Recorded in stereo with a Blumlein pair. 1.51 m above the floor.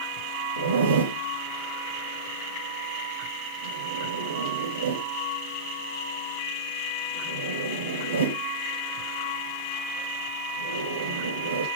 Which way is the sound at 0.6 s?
65° right.